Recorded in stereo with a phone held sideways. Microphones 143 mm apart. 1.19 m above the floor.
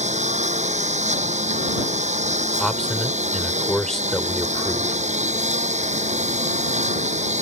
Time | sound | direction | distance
0.0 | a lawn mower | 55° right (ahead or behind) | ?
2.6 | a man speaking | 5° left (ahead or behind) | ?